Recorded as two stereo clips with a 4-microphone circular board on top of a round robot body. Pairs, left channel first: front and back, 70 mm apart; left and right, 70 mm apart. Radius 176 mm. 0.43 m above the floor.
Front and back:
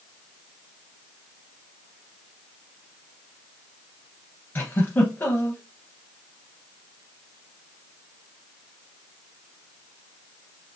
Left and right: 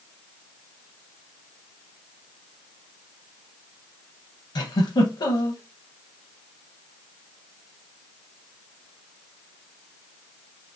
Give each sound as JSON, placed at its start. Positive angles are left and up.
{"t": 4.5, "sound": "a giggle", "azimuth_deg": 65, "distance_m": 0.6}